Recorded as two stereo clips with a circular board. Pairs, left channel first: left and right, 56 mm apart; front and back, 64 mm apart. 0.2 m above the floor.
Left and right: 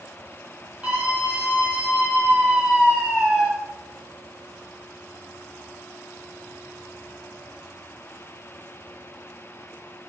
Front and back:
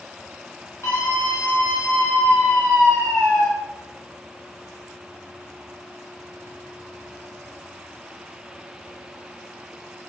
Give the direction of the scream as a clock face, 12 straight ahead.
1 o'clock.